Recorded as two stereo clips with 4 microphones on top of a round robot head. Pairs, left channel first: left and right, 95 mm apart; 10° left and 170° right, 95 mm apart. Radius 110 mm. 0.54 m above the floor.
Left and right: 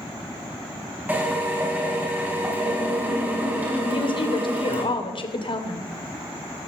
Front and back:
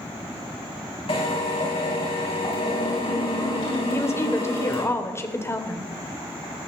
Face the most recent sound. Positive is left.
turn(degrees=70)